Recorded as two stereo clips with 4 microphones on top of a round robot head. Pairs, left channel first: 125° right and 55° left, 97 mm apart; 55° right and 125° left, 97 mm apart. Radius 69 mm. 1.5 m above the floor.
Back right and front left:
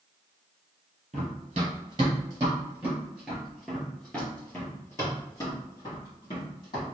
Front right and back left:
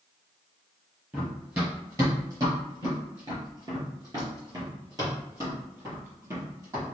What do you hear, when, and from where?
1.1 s running footsteps: 60° left, 1.8 m; by 6.9 s 170° right, 2.5 m